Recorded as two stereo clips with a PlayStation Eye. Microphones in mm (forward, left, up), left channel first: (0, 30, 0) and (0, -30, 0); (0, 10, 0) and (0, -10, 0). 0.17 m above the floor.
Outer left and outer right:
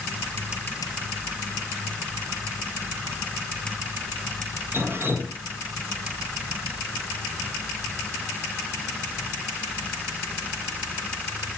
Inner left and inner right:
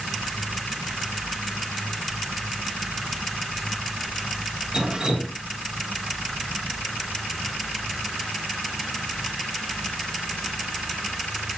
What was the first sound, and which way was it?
Dripping, 40° right (ahead or behind).